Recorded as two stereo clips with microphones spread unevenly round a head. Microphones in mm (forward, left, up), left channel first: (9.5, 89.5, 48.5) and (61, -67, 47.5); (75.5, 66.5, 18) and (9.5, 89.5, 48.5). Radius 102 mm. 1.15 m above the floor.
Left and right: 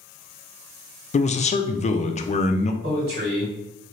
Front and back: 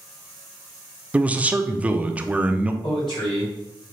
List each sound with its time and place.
1.1 s a man speaking: 70° left, 0.6 m
2.8 s a man speaking: 50° right, 2 m